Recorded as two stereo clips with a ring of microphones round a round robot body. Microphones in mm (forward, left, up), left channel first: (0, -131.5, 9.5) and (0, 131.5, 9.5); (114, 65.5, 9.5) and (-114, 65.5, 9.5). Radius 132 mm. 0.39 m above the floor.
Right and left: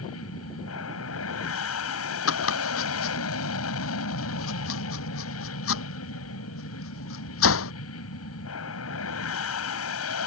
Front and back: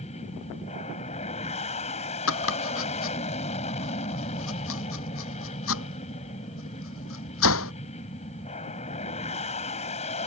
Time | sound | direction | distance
0.0 | an aircraft | 65° right | ?
2.3 | chopping | 45° right | ?